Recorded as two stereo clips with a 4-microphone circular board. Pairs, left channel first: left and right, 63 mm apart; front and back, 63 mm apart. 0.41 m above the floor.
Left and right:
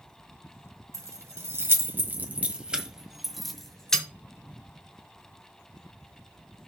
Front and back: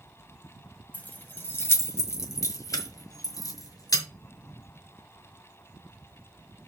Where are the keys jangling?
60° right, 1.5 m; by 4.0 s 10° left, 1.8 m.